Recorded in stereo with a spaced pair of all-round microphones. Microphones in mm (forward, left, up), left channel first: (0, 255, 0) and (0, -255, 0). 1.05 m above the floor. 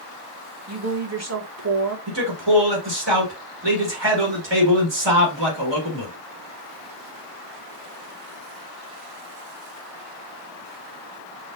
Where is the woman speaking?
30° right (ahead or behind), 1.0 m.